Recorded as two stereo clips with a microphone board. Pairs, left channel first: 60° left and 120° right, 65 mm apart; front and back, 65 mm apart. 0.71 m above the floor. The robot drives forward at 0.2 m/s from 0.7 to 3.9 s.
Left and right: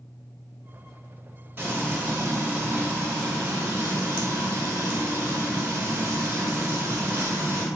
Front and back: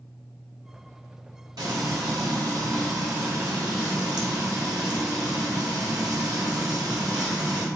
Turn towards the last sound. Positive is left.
turn(degrees=175)